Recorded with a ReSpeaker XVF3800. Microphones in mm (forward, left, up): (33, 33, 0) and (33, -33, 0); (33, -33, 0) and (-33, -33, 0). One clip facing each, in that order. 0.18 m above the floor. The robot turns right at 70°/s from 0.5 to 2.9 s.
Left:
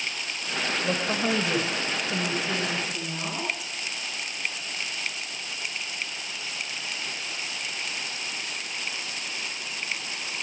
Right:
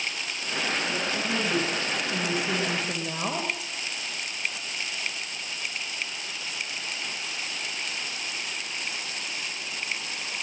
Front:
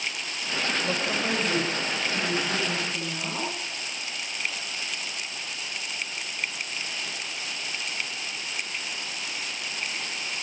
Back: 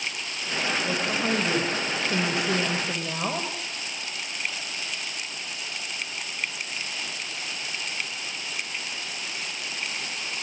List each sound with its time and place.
0.8 s a woman speaking: 80° left, 9.5 m; by 3.5 s 135° right, 9.5 m